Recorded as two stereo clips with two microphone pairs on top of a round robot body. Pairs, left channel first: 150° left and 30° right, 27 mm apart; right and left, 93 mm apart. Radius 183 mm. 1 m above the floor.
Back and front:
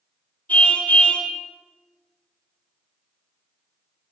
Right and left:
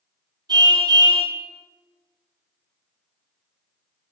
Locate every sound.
0.5 s a car horn: 135° left, 7 m